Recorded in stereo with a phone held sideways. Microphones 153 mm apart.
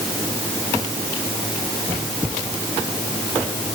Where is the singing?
I don't hear singing.